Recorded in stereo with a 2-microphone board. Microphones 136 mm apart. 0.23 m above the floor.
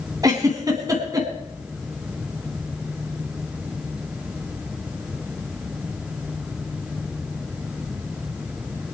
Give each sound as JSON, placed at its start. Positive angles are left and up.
{"t": 0.2, "sound": "a giggle", "side_deg": -25, "distance_m": 2.5}